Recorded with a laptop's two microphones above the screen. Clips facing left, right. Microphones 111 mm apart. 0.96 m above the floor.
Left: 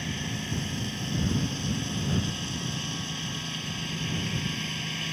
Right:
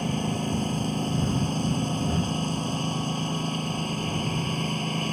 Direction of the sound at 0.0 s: 40° right (ahead or behind).